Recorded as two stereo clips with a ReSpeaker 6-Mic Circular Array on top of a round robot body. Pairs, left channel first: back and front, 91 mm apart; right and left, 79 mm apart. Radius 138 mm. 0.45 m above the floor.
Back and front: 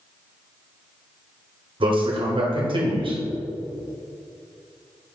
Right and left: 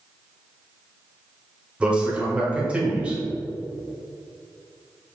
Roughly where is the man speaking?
Ahead.